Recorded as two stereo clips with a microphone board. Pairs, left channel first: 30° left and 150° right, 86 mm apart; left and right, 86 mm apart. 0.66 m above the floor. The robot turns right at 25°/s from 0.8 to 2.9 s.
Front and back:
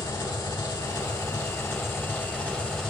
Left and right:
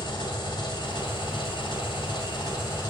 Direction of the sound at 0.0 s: 65° left.